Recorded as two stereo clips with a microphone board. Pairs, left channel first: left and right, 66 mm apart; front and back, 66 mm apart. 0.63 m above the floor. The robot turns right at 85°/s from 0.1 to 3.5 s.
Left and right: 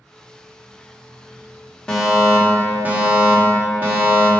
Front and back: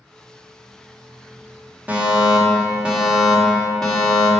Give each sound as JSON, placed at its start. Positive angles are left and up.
{"t": 1.9, "sound": "a fire alarm", "azimuth_deg": 150, "distance_m": 1.8}